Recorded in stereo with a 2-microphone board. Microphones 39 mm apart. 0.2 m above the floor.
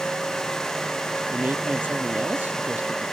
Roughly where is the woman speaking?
Right.